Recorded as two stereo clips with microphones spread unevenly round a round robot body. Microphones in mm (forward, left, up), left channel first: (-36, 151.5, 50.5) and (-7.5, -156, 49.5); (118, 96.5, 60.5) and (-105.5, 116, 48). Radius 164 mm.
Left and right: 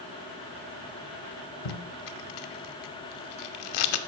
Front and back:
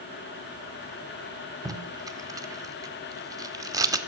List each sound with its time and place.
1.6 s tape being pulled: 100° left, 0.6 m